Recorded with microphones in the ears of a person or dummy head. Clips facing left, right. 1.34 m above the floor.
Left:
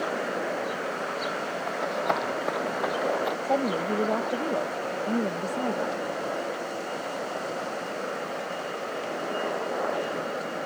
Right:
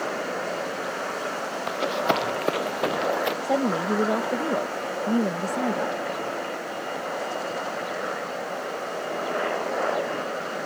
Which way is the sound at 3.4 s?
10° right (ahead or behind).